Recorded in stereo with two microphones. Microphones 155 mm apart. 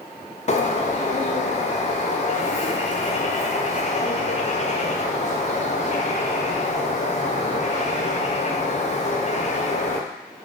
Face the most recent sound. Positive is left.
turn(degrees=45)  # may be behind; listen again after turning